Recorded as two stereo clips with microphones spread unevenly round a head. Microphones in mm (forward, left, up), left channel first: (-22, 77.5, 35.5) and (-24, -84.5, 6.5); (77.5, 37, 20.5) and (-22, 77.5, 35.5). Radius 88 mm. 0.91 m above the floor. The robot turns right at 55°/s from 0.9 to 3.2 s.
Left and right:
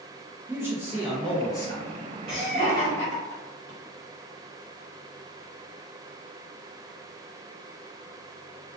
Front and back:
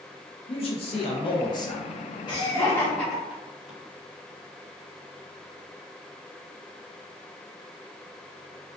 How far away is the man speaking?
About 0.7 m.